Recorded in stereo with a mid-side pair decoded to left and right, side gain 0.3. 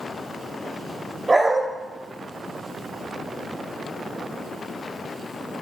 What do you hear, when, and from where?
1.3 s a dog barking: 30° right, 2.5 m